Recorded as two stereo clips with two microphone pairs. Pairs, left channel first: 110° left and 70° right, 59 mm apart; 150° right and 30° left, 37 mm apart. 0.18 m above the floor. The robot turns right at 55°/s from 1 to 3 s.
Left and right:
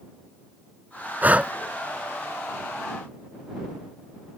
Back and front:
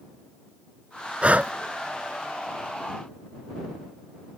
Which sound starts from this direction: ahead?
Breathing, at 1.2 s.